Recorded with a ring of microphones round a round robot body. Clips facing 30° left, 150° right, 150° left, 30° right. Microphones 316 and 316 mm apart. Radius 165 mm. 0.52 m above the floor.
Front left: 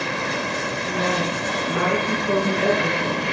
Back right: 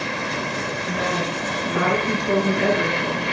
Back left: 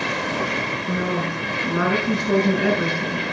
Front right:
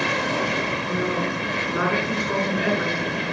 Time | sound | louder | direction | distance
0.9 | a woman speaking | front left 2 dB, back left 2 dB | 140° left | 8 m